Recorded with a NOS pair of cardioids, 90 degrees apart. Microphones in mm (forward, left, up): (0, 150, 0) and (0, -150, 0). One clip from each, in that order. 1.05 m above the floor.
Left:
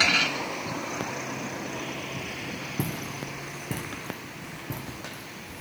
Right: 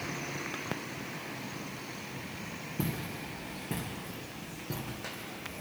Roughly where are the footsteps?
Ahead left.